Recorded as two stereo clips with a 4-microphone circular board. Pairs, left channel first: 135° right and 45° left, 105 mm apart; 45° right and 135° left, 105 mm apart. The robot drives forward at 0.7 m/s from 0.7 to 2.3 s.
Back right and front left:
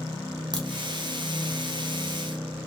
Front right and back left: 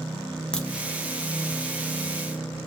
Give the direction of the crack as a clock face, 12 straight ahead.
11 o'clock.